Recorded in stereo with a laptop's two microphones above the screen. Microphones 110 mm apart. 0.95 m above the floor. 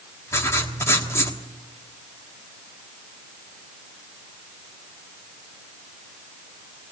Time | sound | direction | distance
0.3 | writing | 25° left (ahead or behind) | 1.3 m